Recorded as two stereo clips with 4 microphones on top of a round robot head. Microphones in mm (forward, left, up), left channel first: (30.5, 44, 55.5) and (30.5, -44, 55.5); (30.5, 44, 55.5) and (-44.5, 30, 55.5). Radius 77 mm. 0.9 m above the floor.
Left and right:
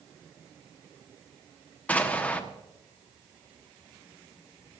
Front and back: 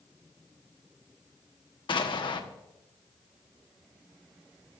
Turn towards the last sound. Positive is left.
turn(degrees=20)